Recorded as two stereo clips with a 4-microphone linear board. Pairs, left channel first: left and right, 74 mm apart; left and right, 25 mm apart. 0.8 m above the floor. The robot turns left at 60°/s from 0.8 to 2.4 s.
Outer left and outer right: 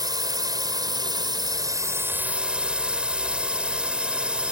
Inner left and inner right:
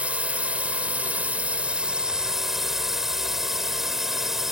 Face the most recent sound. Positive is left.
turn(degrees=-165)